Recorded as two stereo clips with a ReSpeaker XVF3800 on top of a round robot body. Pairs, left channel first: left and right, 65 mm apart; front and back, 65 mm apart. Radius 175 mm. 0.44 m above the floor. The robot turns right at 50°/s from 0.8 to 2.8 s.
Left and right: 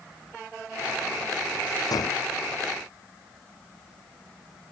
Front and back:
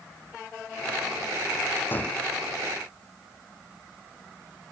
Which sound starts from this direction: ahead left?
A gunshot, at 1.9 s.